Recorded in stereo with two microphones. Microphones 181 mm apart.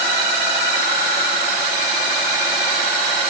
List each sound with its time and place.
Only background noise.